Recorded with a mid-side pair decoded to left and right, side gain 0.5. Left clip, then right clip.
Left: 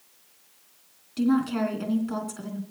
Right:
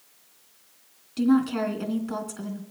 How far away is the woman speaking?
About 3 m.